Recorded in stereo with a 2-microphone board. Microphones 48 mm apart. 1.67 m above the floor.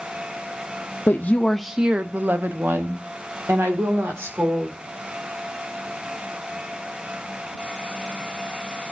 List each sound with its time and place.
1.1 s a woman speaking: 45° left (ahead or behind), 0.6 m; by 4.8 s 65° right (ahead or behind), 3 m